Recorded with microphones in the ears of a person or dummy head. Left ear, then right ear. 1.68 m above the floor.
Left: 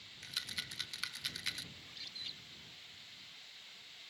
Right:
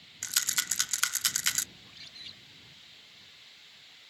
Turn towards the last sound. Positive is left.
turn(degrees=-5)  # may be behind; listen again after turning